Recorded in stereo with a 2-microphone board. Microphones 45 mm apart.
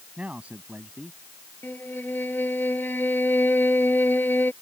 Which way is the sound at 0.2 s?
30° right (ahead or behind).